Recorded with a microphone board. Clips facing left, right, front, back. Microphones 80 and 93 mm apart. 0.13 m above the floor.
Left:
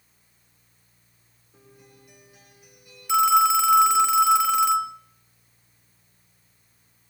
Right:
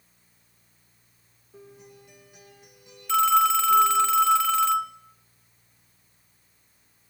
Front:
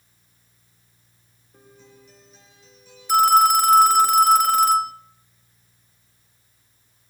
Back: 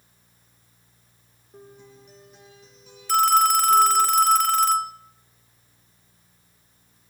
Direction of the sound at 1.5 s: 155° right.